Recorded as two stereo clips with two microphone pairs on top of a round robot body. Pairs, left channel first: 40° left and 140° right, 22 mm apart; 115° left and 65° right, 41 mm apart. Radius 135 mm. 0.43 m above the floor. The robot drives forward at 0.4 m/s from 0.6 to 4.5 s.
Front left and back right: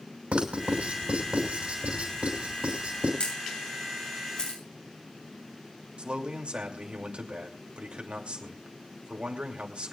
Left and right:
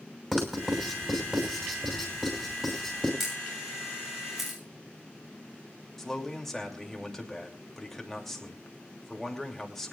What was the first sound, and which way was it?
Writing, 145° right.